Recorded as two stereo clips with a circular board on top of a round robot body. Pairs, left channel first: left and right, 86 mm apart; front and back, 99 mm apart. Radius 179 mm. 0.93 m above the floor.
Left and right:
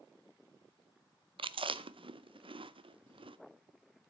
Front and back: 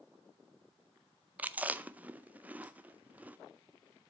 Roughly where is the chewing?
Right.